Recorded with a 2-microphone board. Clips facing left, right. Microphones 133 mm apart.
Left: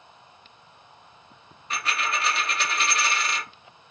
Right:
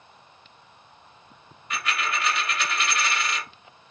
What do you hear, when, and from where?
1.7 s a dropped coin: 30° left (ahead or behind), 1.0 m